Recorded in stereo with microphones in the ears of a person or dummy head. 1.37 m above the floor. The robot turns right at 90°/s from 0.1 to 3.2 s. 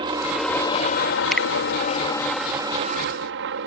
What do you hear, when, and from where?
0.0 s a helicopter: 25° right; by 3.7 s 105° right
1.3 s a finger snap: 5° left (ahead or behind); by 1.5 s 20° left (ahead or behind)